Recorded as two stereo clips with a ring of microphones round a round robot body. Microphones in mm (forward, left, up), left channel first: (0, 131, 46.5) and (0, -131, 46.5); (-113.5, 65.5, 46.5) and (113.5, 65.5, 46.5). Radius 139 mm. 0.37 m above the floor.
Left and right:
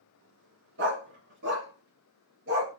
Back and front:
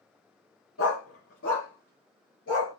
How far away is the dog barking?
About 1.6 m.